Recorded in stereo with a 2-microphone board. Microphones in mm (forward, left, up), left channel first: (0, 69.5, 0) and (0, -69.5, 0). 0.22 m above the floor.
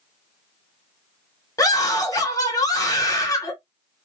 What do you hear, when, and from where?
1.6 s a scream: 25° left (ahead or behind), 1.1 m